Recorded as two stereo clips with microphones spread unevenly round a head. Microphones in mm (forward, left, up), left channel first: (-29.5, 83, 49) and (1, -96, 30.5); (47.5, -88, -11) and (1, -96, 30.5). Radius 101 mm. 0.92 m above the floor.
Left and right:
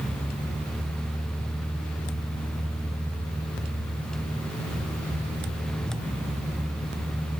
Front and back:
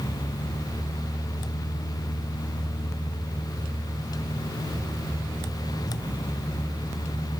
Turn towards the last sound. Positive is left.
No sound to turn to.